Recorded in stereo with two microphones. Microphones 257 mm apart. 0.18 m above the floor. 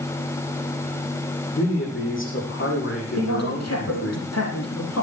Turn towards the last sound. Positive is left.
turn(degrees=75)  # may be behind; listen again after turning